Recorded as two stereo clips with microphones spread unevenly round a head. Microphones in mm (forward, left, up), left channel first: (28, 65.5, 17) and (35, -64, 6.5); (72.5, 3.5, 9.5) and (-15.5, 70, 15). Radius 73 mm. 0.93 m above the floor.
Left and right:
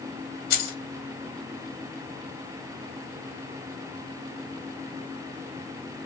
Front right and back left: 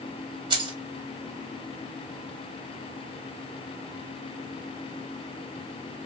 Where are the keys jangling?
95° left, 0.8 m.